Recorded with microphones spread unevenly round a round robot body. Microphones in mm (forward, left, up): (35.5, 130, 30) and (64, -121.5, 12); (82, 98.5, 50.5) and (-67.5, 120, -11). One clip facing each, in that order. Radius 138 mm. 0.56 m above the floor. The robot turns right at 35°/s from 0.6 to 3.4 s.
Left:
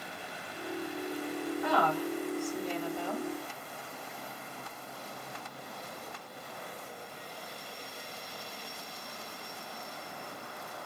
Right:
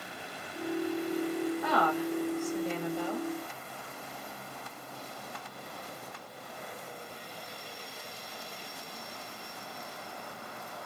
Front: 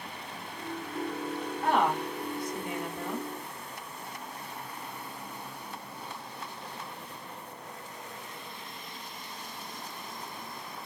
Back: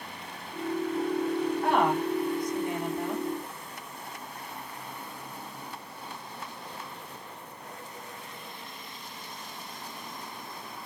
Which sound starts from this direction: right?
A woman speaking, at 1.6 s.